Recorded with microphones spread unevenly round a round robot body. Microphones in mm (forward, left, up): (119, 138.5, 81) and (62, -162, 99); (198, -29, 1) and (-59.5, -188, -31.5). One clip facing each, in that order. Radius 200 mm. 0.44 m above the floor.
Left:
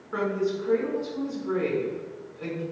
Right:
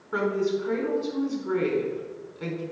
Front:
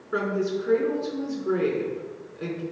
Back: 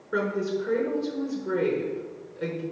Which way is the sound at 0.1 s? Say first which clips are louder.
Right 2 dB, front 1 dB; 50° right.